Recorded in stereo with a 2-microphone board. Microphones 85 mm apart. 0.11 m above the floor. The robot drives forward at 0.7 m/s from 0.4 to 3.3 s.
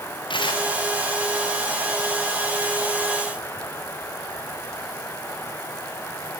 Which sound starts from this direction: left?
Tearing paper, at 0.3 s.